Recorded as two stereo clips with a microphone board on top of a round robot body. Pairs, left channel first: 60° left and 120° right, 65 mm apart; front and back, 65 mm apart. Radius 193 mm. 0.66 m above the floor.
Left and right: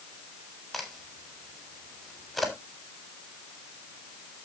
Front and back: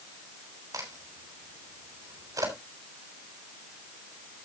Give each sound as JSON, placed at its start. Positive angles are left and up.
{"t": 0.7, "sound": "a crack", "azimuth_deg": 150, "distance_m": 5.0}